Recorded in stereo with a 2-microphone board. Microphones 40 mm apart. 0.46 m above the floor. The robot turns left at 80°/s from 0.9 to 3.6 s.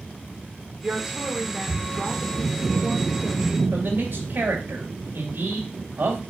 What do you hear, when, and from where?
0.8 s a woman speaking: 130° right, 1.3 m; by 3.6 s 10° left, 1.3 m
3.7 s a man speaking: 60° right (ahead or behind), 2 m